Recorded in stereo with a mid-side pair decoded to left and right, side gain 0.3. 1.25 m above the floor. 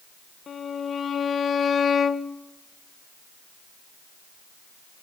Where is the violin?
65° left, 0.8 m.